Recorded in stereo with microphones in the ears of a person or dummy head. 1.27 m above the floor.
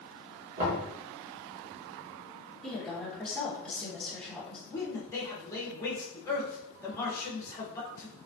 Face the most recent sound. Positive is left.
turn(degrees=15)  # may be behind; listen again after turning